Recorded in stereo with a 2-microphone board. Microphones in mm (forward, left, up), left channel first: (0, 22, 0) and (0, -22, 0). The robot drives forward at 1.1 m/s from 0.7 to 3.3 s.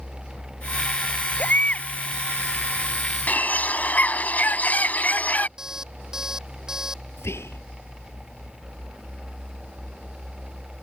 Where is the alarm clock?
10° right (ahead or behind).